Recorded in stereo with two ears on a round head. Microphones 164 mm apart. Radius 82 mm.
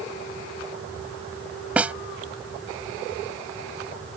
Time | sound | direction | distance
1.8 | a snare drum | 10° right (ahead or behind) | ?